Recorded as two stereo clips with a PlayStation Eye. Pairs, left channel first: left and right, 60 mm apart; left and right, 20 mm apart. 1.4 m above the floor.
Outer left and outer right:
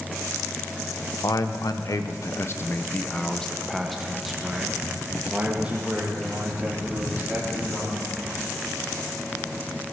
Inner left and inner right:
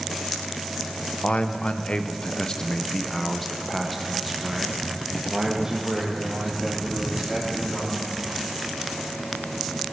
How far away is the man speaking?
About 1.2 m.